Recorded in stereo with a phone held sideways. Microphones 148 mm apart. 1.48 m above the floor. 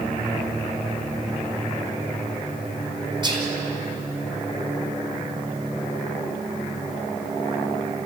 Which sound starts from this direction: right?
Whispering, at 3.2 s.